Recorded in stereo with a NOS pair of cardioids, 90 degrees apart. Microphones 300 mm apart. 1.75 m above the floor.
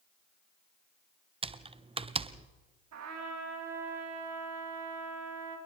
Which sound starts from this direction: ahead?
Typing on a keyboard, at 1.4 s.